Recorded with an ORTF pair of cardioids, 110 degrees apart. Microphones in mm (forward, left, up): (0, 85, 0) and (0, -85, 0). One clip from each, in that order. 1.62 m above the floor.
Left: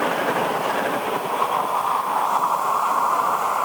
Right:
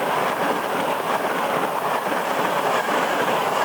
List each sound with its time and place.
Only background noise.